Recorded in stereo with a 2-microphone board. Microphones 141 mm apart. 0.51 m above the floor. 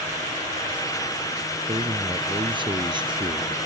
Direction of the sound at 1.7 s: 40° right (ahead or behind).